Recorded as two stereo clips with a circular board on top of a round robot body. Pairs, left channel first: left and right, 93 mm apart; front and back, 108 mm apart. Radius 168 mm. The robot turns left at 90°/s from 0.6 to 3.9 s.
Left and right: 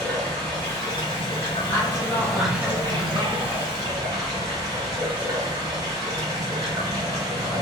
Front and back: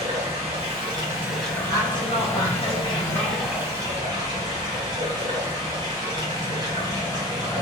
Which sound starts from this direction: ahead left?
A woman speaking, at 1.7 s.